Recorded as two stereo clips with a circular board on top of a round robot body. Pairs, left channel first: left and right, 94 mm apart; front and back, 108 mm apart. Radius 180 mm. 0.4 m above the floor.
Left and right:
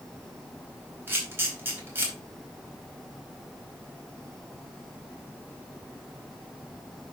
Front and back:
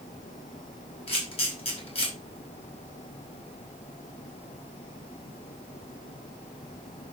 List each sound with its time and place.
1.1 s a camera shutter: 25° right, 4.5 m